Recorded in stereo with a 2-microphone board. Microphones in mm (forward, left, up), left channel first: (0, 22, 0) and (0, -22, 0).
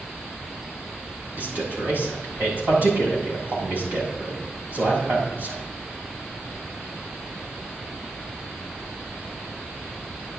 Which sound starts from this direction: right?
A man speaking, at 1.4 s.